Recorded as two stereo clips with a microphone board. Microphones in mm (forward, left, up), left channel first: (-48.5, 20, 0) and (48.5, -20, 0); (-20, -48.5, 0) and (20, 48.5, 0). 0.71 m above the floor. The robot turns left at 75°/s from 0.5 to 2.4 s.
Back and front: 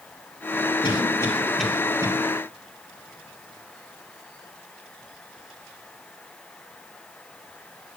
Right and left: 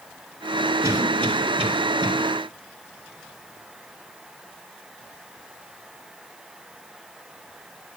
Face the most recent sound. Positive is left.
turn(degrees=10)